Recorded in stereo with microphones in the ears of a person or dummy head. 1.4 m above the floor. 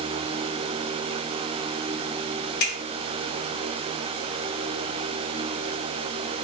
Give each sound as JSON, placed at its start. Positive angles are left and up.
{"t": 2.6, "sound": "a finger snap", "side_deg": 60, "distance_m": 1.3}